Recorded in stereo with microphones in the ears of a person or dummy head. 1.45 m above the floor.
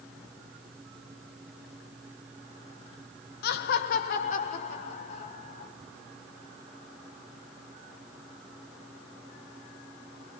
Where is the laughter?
55° left (ahead or behind), 0.5 m; by 5.7 s 45° left (ahead or behind), 3 m.